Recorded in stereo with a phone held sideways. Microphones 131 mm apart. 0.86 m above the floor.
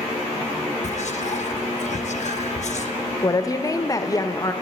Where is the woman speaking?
25° left (ahead or behind), 0.5 m.